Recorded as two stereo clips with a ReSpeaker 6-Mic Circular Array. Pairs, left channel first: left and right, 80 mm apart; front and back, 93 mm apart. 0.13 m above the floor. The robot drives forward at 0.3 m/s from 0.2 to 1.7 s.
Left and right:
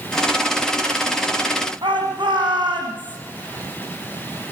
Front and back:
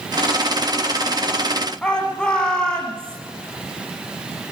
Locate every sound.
1.8 s a shout: 80° right, 9.5 m